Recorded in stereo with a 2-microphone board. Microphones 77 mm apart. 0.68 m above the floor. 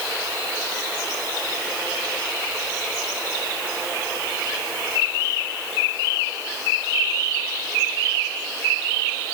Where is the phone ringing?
No phone ringing in this recording.